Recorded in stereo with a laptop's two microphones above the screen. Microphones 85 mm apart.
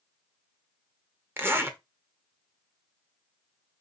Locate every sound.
1.4 s a zipper: 25° right (ahead or behind), 0.7 m